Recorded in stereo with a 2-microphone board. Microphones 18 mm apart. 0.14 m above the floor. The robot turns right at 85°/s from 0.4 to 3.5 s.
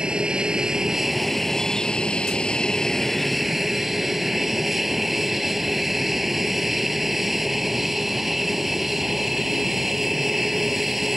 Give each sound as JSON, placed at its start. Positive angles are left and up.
{"t": 0.0, "sound": "an aircraft", "azimuth_deg": -70}